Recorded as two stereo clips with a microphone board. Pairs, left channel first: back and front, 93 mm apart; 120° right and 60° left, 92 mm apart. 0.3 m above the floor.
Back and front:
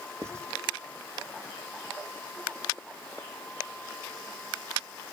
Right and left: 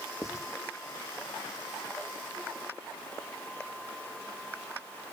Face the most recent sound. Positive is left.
turn(degrees=-60)